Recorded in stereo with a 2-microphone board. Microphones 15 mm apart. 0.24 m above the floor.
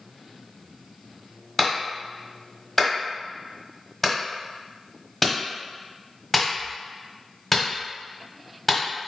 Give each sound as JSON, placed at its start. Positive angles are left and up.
{"t": 1.6, "sound": "a clap", "side_deg": 10, "distance_m": 1.2}